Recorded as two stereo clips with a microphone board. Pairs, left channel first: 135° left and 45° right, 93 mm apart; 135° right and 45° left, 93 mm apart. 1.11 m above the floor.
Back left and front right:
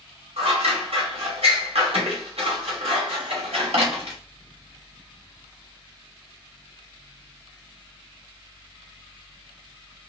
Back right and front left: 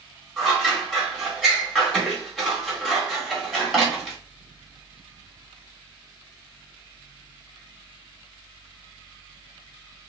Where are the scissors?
45° right, 2 m.